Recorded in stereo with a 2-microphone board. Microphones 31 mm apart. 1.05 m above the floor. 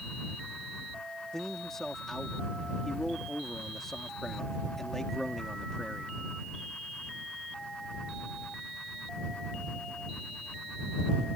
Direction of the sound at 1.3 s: 15° left (ahead or behind).